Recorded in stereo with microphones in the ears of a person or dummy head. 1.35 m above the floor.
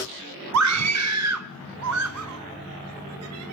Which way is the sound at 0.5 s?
85° right.